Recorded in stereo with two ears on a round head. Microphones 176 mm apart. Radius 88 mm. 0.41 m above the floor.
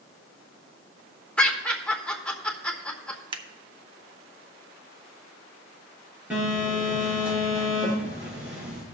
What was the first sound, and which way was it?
Laughter, 5° left (ahead or behind).